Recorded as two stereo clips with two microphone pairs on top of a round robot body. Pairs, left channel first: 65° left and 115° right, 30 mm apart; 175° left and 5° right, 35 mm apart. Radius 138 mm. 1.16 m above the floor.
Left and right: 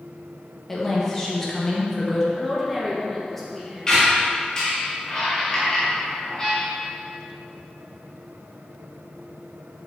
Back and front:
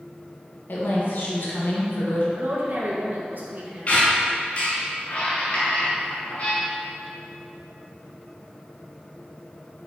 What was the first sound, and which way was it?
A woman speaking, 145° left.